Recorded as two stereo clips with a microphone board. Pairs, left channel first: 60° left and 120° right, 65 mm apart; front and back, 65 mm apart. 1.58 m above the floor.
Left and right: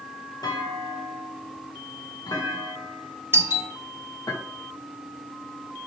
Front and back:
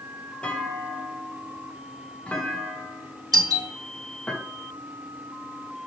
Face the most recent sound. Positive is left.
turn(degrees=-170)